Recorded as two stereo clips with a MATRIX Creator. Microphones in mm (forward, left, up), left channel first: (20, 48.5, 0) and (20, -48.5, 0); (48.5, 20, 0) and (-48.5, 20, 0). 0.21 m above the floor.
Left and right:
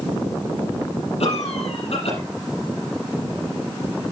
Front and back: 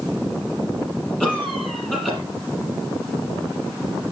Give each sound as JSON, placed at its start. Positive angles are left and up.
{"t": 1.2, "sound": "a cough", "azimuth_deg": 85, "distance_m": 6.5}